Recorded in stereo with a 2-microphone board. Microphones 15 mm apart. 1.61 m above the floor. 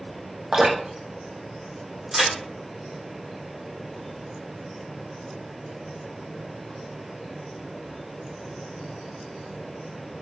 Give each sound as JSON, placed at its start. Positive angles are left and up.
{"t": 0.5, "sound": "dripping", "side_deg": -75, "distance_m": 0.9}
{"t": 2.1, "sound": "a crack", "side_deg": -60, "distance_m": 2.0}